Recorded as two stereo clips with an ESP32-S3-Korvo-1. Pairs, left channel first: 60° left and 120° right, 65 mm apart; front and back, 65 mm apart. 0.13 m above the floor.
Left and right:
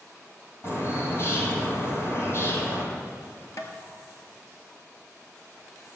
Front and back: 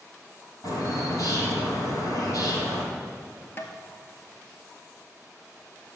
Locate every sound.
0.6 s a bird: 20° left, 4 m
3.6 s tapping: 45° left, 1.5 m